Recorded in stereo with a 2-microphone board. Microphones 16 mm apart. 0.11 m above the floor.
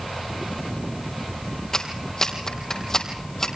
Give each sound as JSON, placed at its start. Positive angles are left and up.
{"t": 1.7, "sound": "a clap", "side_deg": 30, "distance_m": 3.5}